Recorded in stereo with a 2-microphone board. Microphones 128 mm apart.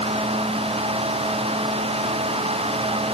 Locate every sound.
Only background noise.